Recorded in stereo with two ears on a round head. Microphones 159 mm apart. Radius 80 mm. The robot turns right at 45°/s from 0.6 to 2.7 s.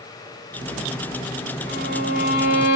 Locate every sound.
1.7 s a violin: 35° left, 1.9 m; by 2.8 s 85° left, 1.9 m